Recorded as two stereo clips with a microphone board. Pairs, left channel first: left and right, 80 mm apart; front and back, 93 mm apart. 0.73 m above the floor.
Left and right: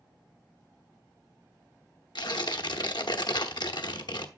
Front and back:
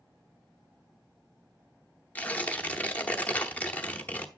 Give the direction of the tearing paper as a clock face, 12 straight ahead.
10 o'clock.